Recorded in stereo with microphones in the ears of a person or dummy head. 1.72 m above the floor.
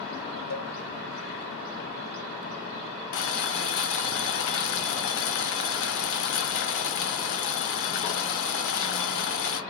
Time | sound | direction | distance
0.5 | a cowbell | 50° left (ahead or behind) | 1.0 m
3.1 | boiling | 65° left (ahead or behind) | 0.9 m